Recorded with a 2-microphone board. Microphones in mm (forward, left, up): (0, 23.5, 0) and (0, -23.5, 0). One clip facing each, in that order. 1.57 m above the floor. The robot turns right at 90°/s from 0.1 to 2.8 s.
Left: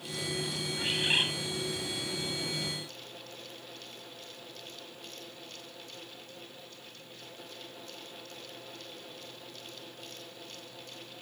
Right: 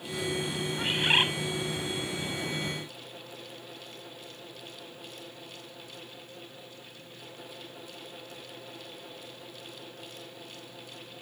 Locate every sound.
0.8 s a bird: 170° right, 2 m; by 1.3 s 125° right, 2 m